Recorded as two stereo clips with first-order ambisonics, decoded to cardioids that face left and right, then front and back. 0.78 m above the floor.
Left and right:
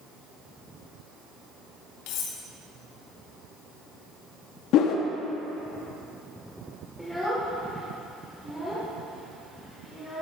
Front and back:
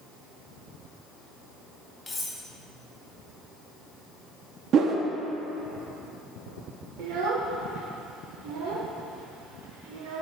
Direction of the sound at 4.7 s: 125° left.